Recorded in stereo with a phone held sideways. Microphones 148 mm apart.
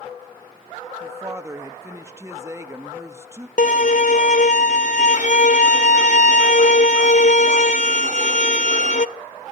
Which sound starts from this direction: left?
A violin, at 3.6 s.